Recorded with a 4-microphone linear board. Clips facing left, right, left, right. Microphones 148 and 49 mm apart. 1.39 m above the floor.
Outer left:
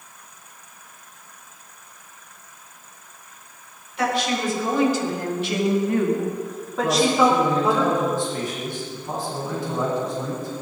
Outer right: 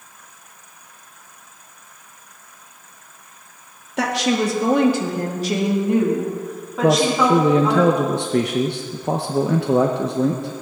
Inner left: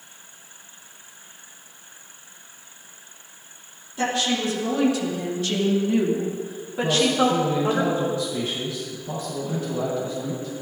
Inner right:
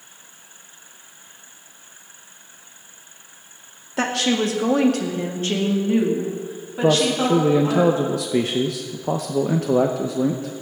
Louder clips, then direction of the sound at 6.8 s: Outer right 2 dB, inner right 2 dB; 70° right (ahead or behind).